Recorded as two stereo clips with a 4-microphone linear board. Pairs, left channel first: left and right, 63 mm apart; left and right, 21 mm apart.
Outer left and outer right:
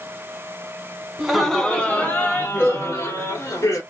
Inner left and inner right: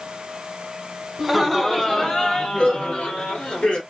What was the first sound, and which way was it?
Laughter, 5° right (ahead or behind).